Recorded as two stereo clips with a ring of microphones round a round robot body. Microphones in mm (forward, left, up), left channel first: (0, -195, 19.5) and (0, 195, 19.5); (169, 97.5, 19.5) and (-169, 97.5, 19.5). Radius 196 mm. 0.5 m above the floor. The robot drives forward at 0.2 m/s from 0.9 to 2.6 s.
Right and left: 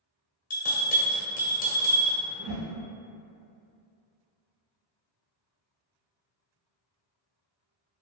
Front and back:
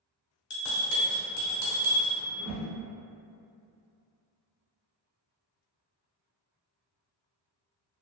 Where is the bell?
30° right, 0.9 m; by 2.2 s 50° right, 0.7 m.